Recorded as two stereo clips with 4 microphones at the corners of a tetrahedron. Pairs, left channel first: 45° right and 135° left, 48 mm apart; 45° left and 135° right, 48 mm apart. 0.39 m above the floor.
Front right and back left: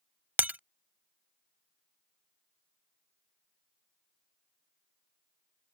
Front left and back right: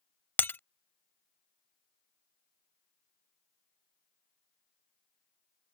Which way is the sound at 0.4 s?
90° left.